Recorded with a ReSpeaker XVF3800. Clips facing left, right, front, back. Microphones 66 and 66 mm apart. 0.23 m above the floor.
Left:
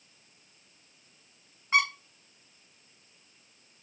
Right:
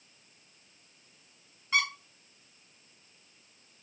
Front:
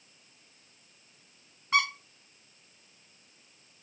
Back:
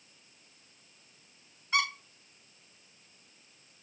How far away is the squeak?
About 2.5 m.